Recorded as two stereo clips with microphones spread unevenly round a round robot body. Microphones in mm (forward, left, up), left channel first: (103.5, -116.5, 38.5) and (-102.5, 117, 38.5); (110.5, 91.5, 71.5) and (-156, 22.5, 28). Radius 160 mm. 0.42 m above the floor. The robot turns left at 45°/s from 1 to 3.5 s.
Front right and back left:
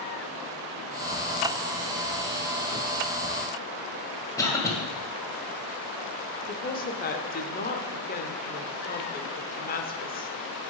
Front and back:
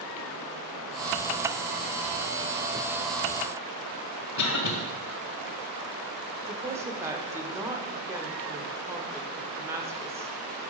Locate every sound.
4.4 s a cough: 30° left, 2 m
6.5 s a woman speaking: 100° right, 1.0 m